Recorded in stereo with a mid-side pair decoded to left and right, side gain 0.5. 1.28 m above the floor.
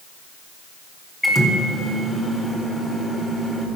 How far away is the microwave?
About 2 m.